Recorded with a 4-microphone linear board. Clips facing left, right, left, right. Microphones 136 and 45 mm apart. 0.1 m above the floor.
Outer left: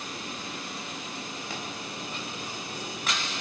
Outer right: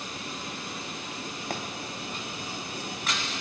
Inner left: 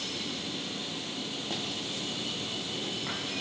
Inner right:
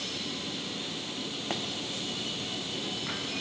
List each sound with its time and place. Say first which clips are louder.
1.5 s a pop: outer right 5 dB, inner right 3 dB; 50° right (ahead or behind), 2.0 m